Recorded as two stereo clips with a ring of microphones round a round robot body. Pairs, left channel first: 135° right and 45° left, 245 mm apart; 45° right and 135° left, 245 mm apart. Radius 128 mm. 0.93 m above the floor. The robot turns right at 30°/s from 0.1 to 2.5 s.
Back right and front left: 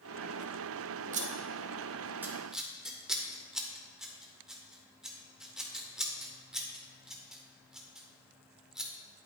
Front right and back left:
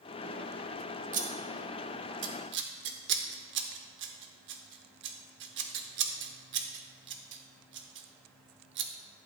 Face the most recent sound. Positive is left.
turn(degrees=130)